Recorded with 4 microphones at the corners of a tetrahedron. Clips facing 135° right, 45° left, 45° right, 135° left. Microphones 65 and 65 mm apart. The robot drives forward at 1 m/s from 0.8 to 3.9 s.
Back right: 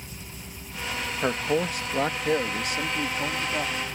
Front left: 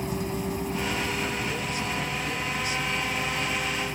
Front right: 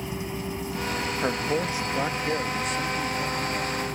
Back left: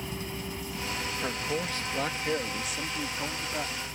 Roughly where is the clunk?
I don't hear a clunk.